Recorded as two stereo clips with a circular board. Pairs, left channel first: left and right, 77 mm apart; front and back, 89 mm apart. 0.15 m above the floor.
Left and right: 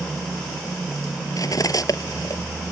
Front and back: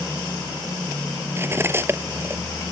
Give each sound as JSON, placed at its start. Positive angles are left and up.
{"t": 1.4, "sound": "cutlery clinking", "azimuth_deg": 120}